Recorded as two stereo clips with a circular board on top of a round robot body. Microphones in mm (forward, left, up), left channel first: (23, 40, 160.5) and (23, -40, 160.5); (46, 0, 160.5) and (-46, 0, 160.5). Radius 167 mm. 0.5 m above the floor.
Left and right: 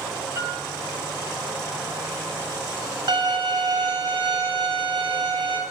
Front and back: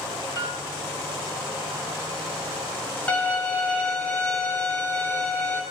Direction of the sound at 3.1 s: 75° right.